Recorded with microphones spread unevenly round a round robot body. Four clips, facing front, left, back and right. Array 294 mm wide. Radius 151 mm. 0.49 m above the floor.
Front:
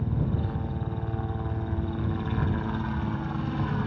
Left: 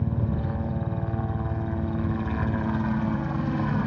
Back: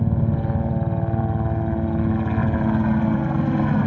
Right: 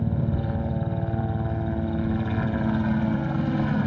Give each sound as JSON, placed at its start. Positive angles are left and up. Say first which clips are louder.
{"t": 0.0, "sound": "a helicopter", "louder": "right 2 dB, back 7 dB", "azimuth_deg": -170}